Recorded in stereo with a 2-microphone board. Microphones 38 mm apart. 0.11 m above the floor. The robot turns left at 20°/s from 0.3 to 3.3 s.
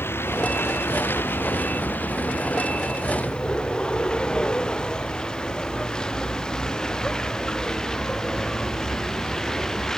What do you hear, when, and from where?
0.0 s a vehicle: 85° left; by 10.0 s 15° left (ahead or behind)